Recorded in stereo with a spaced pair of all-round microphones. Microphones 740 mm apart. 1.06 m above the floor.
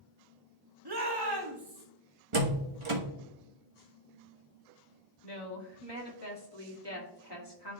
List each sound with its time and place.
0.8 s a shout: 35° right (ahead or behind), 1.2 m
2.3 s a door slam: 45° right (ahead or behind), 1.2 m
5.2 s a woman speaking: 35° left (ahead or behind), 2 m